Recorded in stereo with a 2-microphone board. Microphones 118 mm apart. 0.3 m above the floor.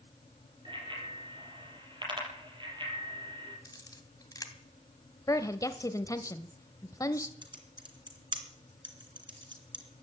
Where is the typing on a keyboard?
40° right (ahead or behind), 3 m.